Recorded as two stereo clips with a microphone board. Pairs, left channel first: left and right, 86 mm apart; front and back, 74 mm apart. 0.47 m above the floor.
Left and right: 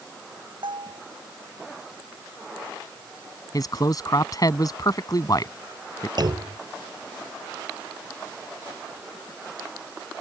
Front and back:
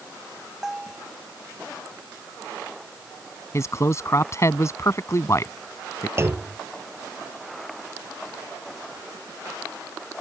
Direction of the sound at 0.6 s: 95° right.